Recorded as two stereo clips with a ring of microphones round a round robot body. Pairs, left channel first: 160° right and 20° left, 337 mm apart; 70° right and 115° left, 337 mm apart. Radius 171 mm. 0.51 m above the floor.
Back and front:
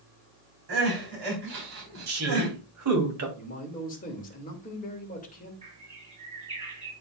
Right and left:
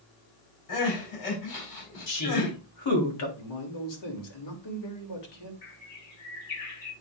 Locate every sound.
0.7 s crying: 30° right, 4.5 m
2.1 s a woman speaking: 25° right, 3 m
3.4 s a man speaking: 90° right, 2.5 m
5.6 s a bird: 50° right, 5.5 m